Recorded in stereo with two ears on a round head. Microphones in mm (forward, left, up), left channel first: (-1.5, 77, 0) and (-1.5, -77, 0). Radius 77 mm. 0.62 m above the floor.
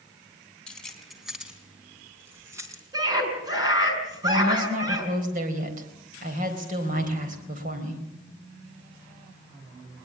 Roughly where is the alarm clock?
No alarm clock in this recording.